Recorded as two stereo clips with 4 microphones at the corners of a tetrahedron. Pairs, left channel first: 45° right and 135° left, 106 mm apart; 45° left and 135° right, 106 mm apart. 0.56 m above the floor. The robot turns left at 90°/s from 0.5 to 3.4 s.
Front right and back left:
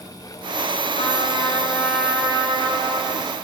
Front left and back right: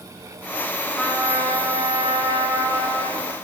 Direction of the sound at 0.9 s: 40° right.